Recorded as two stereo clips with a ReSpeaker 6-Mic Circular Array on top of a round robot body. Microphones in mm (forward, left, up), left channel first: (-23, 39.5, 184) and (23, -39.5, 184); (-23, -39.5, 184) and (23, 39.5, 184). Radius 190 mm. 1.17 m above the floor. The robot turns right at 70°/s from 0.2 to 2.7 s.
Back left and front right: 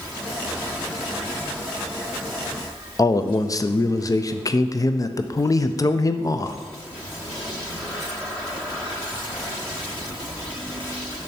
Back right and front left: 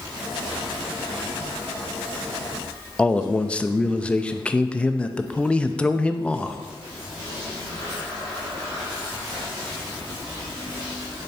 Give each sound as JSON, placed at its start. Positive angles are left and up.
{"t": 3.0, "sound": "a man speaking", "azimuth_deg": 165, "distance_m": 0.5}